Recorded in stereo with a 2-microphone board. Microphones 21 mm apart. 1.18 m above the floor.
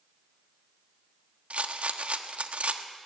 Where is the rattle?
80° right, 1.3 m.